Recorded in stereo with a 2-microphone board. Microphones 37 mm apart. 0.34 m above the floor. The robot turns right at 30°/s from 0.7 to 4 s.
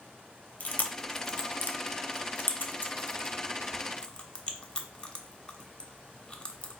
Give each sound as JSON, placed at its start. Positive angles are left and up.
{"t": 0.6, "sound": "chewing", "side_deg": 45, "distance_m": 0.6}